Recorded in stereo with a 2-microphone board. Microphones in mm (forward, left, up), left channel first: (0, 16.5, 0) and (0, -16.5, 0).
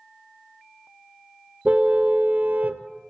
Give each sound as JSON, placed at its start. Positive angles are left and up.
{"t": 1.6, "sound": "a car horn", "side_deg": -40, "distance_m": 2.0}